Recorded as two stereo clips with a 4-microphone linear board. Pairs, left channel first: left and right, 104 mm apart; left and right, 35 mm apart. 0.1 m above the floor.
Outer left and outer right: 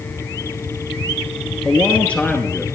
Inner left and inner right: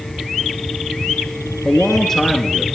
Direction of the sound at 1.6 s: 10° left (ahead or behind).